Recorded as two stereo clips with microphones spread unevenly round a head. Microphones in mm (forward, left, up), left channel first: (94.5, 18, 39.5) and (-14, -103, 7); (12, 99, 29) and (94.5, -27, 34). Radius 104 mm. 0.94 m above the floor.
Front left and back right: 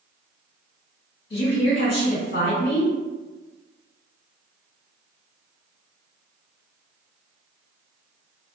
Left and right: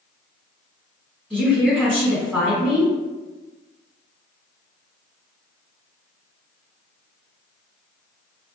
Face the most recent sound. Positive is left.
turn(degrees=30)